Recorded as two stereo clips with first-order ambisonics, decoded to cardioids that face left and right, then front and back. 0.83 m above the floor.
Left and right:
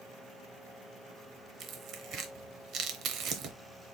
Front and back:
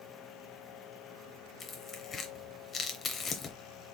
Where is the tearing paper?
60° right, 0.7 m.